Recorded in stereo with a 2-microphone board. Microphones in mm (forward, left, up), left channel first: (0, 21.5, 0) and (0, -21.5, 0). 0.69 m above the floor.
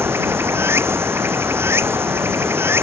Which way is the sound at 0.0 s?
70° right (ahead or behind).